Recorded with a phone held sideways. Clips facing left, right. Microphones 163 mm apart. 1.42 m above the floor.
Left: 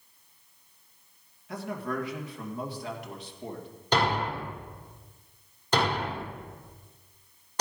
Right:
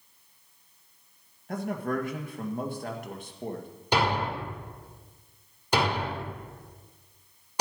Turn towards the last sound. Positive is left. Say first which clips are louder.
# even
turn(degrees=-10)  # may be behind; listen again after turning